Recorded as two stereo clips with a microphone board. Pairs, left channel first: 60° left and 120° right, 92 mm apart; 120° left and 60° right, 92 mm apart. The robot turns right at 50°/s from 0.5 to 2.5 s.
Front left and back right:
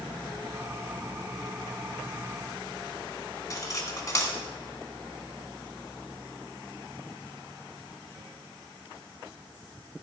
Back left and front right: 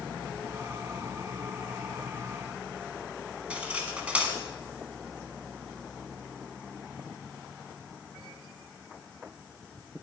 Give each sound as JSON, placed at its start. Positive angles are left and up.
{"t": 3.5, "sound": "cutlery clinking", "azimuth_deg": 15, "distance_m": 1.2}